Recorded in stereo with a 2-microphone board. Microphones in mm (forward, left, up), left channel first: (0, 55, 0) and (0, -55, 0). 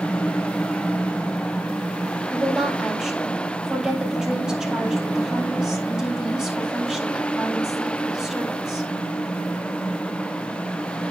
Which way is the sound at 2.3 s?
10° right (ahead or behind).